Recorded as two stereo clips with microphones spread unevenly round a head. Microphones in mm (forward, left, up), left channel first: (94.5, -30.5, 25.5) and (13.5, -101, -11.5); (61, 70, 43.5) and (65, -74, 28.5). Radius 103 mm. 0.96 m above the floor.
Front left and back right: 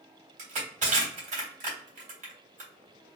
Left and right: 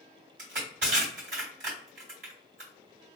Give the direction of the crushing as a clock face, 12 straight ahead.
5 o'clock.